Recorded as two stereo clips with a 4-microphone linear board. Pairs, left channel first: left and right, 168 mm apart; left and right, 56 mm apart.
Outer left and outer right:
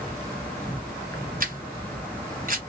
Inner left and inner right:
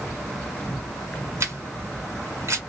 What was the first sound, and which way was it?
An insect, 10° left (ahead or behind).